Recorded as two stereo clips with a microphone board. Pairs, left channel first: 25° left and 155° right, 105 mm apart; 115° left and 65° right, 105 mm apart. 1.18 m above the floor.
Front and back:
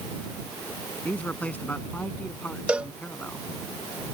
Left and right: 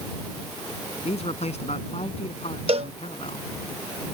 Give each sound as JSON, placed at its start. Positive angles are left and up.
{"t": 1.1, "sound": "a man speaking", "azimuth_deg": 100}
{"t": 2.7, "sound": "a cowbell", "azimuth_deg": -80}